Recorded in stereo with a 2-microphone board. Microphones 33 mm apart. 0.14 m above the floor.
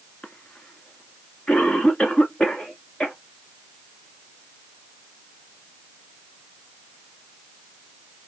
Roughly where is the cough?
Left.